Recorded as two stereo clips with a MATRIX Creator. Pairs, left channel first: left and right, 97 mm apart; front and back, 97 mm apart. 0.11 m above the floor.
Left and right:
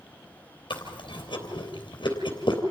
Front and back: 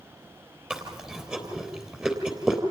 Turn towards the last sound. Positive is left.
turn(degrees=100)